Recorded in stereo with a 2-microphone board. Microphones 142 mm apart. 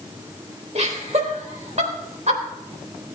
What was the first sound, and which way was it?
Laughter, 55° right (ahead or behind).